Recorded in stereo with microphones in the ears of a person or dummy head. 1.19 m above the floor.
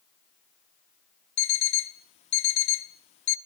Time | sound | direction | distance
1.4 | an alarm clock | 35° left (ahead or behind) | 0.7 m